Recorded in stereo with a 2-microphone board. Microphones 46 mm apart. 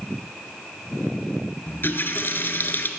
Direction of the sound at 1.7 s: 50° left (ahead or behind).